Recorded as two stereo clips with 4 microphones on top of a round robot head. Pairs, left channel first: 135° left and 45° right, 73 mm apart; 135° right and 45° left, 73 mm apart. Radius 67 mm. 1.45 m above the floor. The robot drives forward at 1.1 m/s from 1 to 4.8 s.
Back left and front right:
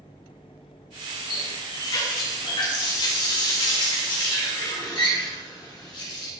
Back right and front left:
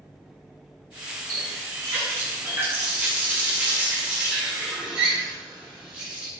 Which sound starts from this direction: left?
A running tap, at 1.3 s.